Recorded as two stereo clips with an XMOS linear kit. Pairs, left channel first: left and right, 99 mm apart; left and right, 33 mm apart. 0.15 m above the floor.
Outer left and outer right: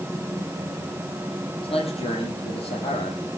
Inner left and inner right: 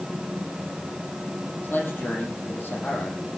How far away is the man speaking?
About 7 m.